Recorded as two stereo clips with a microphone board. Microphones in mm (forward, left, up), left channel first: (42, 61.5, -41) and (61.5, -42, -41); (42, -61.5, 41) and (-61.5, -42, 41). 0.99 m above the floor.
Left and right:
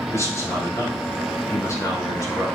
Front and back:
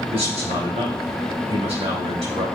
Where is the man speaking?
160° left, 5 m.